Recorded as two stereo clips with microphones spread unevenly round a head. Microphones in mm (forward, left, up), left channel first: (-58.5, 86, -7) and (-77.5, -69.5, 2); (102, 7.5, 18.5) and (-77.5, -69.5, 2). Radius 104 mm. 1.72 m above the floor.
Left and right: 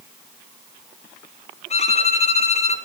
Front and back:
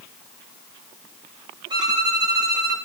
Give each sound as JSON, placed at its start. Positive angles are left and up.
{"t": 1.7, "sound": "a violin", "azimuth_deg": 130, "distance_m": 1.2}